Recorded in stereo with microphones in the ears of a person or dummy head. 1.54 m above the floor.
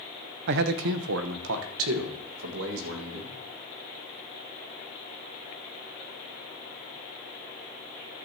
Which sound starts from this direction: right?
A man speaking, at 0.5 s.